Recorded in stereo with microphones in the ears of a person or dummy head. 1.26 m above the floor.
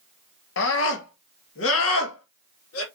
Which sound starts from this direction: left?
A scream, at 0.6 s.